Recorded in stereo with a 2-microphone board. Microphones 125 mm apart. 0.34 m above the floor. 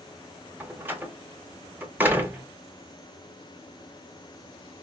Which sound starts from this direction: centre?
A door slam, at 0.6 s.